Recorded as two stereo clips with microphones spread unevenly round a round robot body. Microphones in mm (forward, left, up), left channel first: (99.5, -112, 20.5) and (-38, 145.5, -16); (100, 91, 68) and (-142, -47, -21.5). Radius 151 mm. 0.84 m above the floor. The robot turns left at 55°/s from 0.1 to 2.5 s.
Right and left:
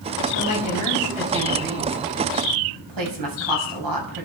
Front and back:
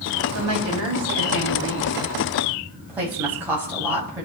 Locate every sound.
0.3 s a woman speaking: 110° right, 6.5 m; by 4.3 s 130° left, 6.5 m